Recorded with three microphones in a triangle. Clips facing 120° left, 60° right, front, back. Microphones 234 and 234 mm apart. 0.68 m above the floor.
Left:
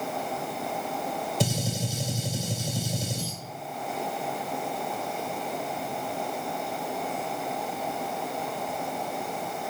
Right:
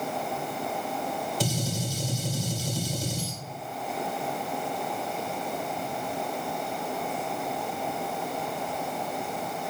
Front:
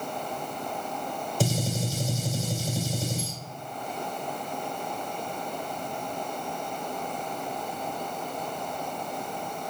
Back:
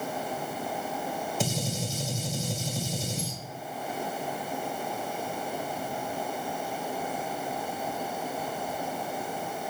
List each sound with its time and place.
1.4 s a gunshot: 55° left, 1.5 m